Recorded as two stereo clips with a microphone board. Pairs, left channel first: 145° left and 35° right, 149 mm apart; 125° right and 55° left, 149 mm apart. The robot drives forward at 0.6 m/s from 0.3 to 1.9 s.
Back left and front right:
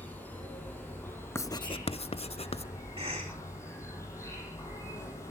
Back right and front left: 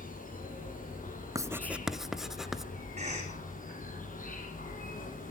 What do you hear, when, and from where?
0.0 s an insect: 135° right, 5 m; by 5.3 s 145° right, 5.5 m
1.4 s writing: 95° left, 0.5 m; by 2.7 s 145° left, 0.6 m
3.0 s a cough: 15° left, 9 m